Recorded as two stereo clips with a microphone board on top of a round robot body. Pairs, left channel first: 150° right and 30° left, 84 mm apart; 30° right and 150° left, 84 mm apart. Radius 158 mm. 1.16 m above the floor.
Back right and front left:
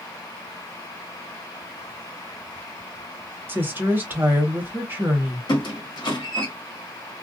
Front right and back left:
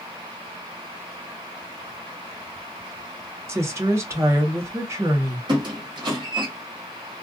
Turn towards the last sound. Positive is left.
turn(degrees=175)